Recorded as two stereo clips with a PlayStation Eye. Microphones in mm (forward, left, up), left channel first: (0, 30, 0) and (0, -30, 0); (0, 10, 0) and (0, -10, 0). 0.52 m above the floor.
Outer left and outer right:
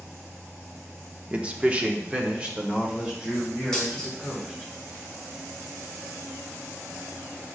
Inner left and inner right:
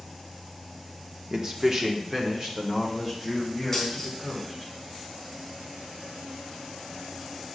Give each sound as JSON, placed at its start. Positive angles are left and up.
{"t": 1.3, "sound": "a man speaking", "side_deg": -20, "distance_m": 0.8}
{"t": 3.7, "sound": "a dropped coin", "side_deg": 15, "distance_m": 2.5}